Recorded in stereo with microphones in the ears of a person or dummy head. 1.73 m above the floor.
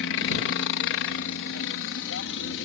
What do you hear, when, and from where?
0.0 s a helicopter: 65° left (ahead or behind); by 2.6 s 70° left (ahead or behind)